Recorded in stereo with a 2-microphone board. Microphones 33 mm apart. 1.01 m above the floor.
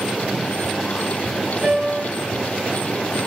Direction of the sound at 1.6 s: 35° right (ahead or behind).